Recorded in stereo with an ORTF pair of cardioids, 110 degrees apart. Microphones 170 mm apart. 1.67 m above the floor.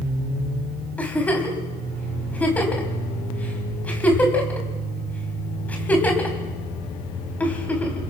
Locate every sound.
1.0 s a giggle: 10° left, 4 m